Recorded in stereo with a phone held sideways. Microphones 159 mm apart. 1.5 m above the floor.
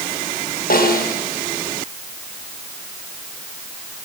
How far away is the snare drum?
About 6 m.